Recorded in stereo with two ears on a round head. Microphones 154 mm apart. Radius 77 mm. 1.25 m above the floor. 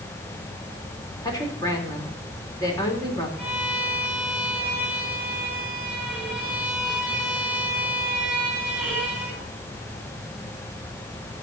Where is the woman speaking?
20° left (ahead or behind), 3.5 m.